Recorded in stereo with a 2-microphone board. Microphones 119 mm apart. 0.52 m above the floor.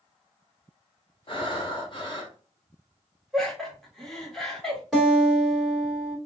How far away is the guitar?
About 1.9 m.